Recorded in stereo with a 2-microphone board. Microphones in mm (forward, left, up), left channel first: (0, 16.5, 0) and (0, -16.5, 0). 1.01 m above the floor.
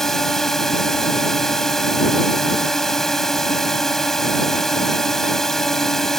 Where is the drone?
10° left (ahead or behind).